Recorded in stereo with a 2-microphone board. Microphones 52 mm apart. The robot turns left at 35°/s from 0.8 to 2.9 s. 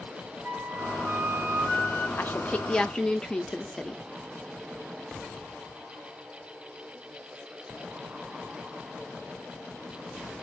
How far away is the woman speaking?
About 0.8 m.